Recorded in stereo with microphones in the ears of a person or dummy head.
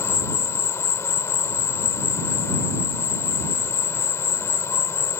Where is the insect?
15° left (ahead or behind).